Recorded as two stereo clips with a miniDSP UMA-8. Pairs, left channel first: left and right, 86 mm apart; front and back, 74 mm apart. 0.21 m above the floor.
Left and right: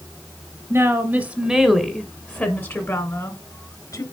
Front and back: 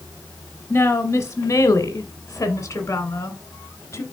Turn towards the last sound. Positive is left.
turn(degrees=50)